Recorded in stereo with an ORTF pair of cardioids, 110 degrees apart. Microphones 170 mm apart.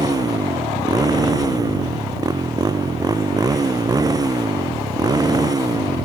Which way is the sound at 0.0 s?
20° right.